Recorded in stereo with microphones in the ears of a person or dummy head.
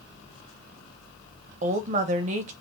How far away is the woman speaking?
About 0.8 m.